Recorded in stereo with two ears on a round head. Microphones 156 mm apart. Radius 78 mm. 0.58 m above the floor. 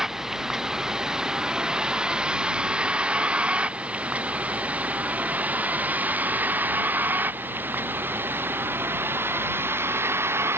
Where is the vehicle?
5° right (ahead or behind); by 10.6 s 15° right (ahead or behind).